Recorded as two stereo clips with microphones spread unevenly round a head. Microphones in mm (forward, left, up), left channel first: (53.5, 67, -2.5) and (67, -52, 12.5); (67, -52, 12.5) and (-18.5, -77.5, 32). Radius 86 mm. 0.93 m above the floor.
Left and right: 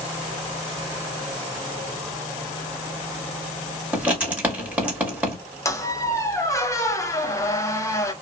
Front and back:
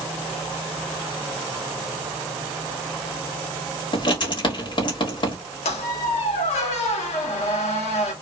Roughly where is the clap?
No clap in this recording.